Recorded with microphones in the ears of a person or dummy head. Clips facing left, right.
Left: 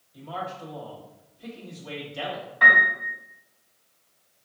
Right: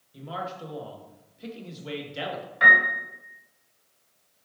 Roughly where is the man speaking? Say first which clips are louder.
Even; right.